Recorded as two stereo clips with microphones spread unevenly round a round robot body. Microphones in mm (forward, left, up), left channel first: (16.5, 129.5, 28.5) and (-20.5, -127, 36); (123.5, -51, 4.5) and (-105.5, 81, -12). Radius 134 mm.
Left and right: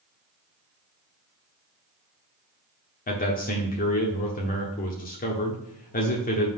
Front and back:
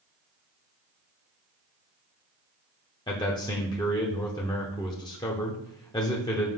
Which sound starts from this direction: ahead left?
A man speaking, at 3.1 s.